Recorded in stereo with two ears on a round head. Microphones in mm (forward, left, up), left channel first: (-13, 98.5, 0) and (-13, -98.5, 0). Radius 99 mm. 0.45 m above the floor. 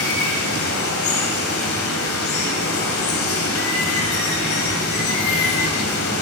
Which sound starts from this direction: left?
Running water, at 0.0 s.